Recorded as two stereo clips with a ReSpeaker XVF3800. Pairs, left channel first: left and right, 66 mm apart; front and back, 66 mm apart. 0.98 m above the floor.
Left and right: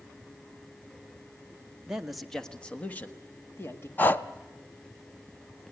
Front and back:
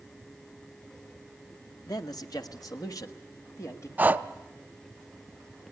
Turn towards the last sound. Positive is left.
turn(degrees=135)